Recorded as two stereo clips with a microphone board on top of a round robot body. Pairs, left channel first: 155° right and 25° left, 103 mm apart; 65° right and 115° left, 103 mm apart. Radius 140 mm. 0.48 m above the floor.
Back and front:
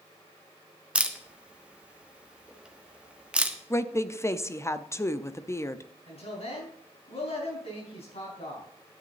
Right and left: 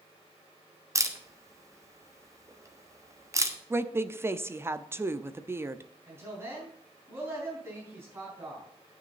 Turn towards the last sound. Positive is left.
turn(degrees=180)